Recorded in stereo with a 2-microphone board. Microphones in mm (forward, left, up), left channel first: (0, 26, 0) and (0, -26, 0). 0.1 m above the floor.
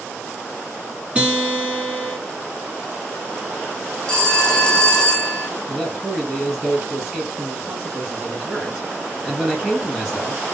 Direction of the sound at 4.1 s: 15° left (ahead or behind).